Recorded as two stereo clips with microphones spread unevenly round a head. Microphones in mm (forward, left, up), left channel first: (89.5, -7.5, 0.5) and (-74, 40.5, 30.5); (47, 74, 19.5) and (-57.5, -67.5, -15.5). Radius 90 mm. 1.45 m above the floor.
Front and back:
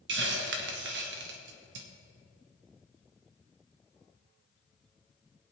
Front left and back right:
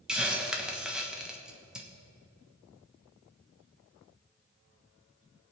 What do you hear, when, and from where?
0.1 s a hiss: 145° left, 1.2 m